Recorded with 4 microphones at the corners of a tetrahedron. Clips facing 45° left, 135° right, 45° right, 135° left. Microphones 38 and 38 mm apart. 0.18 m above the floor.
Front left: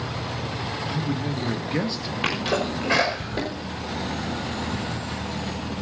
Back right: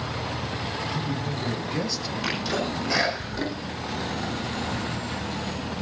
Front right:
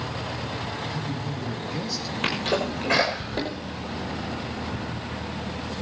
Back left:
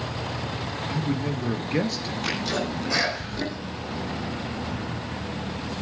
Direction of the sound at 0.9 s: 110° left.